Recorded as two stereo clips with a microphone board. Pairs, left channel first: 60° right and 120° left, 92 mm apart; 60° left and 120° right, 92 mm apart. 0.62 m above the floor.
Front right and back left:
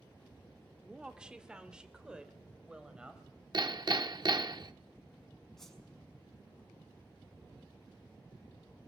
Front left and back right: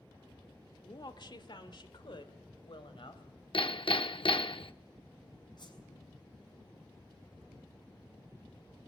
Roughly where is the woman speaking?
Ahead left.